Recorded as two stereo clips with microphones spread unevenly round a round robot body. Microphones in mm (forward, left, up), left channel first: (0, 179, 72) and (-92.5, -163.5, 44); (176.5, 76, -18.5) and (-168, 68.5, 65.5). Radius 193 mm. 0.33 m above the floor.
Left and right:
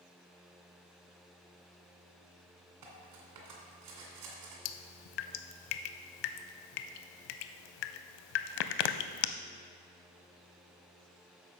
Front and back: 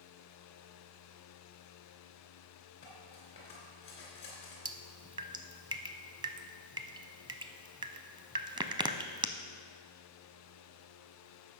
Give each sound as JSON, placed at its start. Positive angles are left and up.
{"t": 2.8, "sound": "cutlery clinking", "azimuth_deg": -70, "distance_m": 2.0}
{"t": 4.7, "sound": "dripping", "azimuth_deg": 105, "distance_m": 0.6}